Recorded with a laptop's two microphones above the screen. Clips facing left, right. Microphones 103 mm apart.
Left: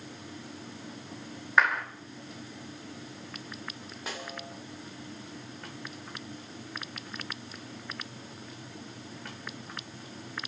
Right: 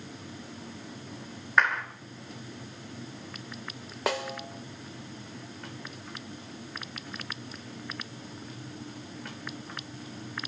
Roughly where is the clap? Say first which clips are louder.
Even; centre.